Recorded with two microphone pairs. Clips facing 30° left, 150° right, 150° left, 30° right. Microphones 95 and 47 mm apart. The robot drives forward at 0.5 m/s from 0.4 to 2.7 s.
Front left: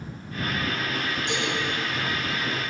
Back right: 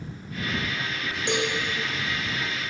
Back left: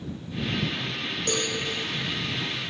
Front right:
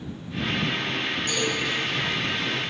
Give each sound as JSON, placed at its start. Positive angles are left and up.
{"t": 1.3, "sound": "a cowbell", "azimuth_deg": 180, "distance_m": 10.0}